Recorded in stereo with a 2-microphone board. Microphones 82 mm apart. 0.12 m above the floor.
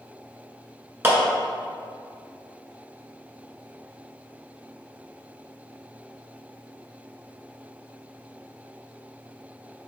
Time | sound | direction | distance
1.0 | a clap | 25° right (ahead or behind) | 1.2 m